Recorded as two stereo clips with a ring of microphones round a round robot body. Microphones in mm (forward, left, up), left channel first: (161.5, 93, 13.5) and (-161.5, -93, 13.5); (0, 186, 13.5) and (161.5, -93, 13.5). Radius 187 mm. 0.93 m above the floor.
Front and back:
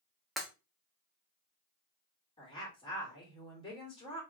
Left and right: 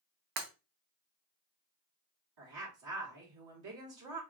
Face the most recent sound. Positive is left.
turn(degrees=-45)